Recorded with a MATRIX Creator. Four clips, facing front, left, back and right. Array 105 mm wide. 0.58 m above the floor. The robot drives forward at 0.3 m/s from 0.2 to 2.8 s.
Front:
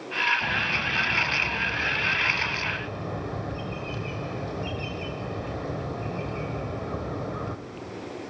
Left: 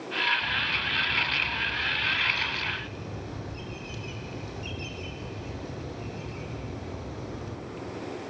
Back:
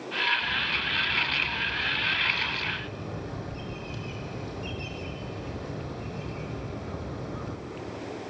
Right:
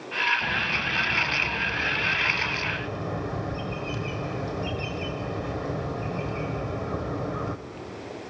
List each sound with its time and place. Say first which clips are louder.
0.4 s a bird: right 3 dB, front 3 dB; 35° right, 1.6 m; by 7.6 s 60° right, 1.2 m